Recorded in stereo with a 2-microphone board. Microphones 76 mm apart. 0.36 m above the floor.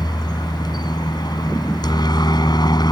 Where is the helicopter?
65° left (ahead or behind).